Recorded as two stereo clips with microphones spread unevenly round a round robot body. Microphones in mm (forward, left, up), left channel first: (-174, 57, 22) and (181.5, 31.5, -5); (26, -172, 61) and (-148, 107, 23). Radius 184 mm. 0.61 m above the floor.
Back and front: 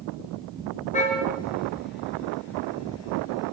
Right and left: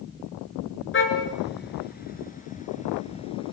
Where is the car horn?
115° right, 6 m; by 3.5 s 135° right, 6 m.